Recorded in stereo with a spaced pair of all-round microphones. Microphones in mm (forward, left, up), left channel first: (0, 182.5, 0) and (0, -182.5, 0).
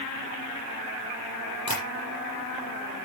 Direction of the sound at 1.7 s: 50° left (ahead or behind).